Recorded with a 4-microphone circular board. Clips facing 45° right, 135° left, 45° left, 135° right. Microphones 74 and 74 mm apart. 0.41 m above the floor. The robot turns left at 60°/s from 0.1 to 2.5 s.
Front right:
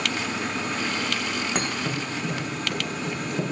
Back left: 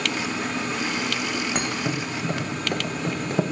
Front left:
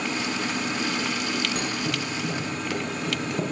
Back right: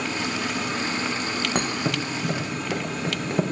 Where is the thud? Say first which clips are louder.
Back left 1 dB, back right 3 dB; 135° right, 0.8 m; by 3.4 s 170° left, 0.8 m.